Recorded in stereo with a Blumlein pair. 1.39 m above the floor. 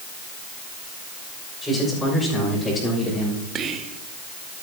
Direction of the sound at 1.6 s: 5° left.